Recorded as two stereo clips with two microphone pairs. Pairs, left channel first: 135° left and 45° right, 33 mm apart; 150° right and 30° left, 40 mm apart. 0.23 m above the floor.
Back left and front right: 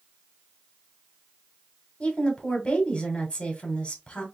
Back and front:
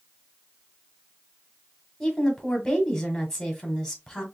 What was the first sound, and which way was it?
A woman speaking, 145° left.